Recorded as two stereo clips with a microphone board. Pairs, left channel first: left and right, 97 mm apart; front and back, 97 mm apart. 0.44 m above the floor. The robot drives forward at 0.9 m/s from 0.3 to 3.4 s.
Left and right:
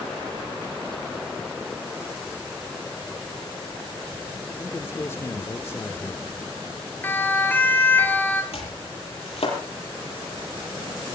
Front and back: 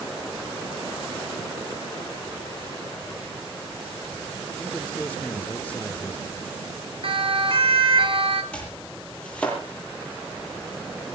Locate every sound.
4.6 s a man speaking: 60° left, 0.8 m
7.0 s a siren: 160° left, 3.5 m
8.5 s chopping: 80° left, 7 m